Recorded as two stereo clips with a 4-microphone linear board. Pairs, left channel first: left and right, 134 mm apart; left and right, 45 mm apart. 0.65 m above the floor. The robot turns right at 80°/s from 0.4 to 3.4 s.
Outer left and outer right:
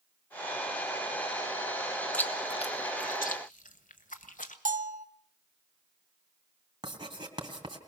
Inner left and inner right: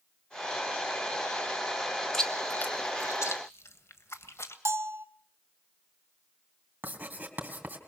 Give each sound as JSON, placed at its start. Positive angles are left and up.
{"t": 2.1, "sound": "chewing", "side_deg": 10, "distance_m": 1.4}
{"t": 4.7, "sound": "a bell", "side_deg": -70, "distance_m": 0.8}
{"t": 6.8, "sound": "writing", "side_deg": -35, "distance_m": 2.5}